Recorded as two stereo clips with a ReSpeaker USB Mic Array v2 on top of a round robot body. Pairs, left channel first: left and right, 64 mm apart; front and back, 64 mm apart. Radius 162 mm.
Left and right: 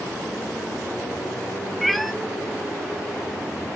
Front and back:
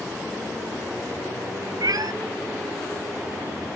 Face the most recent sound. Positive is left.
turn(degrees=180)